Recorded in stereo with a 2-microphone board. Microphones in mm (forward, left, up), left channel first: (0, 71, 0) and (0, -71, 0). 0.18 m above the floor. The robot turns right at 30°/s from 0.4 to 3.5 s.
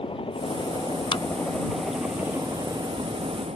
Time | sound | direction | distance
0.0 | a helicopter | 40° left (ahead or behind) | ?
1.1 | a clap | 40° left (ahead or behind) | ?